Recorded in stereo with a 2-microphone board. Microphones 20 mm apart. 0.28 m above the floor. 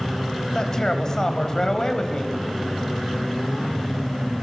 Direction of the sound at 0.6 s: 35° left (ahead or behind).